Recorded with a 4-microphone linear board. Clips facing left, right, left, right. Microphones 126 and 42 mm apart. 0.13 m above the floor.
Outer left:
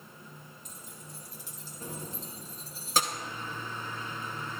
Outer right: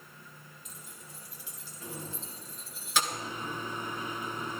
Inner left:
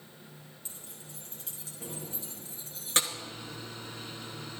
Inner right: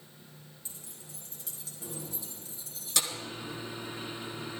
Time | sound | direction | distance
0.7 | keys jangling | 45° left (ahead or behind) | 3.5 m
3.1 | a microwave | 15° right (ahead or behind) | 1.0 m